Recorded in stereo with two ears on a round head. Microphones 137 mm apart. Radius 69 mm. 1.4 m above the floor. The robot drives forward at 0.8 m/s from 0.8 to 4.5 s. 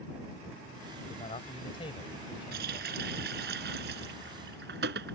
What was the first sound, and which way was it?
A man speaking, 35° left (ahead or behind).